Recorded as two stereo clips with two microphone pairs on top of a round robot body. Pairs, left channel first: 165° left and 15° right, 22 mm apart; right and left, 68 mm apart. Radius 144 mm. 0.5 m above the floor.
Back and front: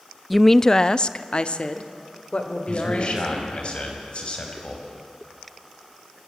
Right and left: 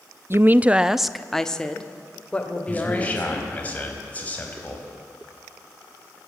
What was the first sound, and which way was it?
A woman speaking, 90° left.